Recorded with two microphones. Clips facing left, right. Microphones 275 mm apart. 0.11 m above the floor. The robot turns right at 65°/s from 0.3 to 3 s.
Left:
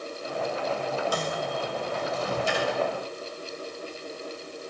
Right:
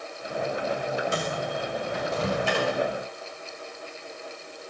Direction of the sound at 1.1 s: 25° right (ahead or behind).